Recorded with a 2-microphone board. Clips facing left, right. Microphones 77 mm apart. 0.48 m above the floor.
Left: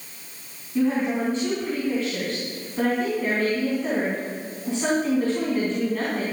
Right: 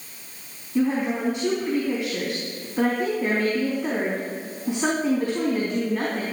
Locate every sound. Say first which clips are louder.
0.8 s a woman speaking: even; 15° right (ahead or behind), 4 m